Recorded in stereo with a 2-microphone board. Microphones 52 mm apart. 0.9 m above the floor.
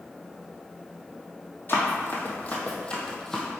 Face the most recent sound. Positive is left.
turn(degrees=5)  # may be behind; listen again after turning